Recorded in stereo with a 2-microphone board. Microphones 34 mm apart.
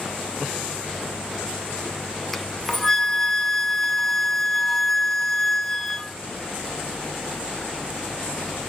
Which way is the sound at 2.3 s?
5° left (ahead or behind).